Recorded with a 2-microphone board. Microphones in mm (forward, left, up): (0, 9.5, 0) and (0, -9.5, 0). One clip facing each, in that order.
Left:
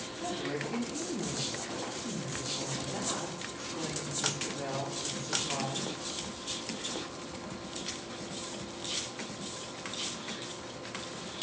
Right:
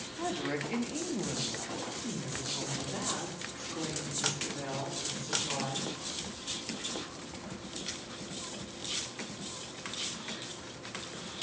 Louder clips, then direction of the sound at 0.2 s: Right 2 dB; 55° right (ahead or behind).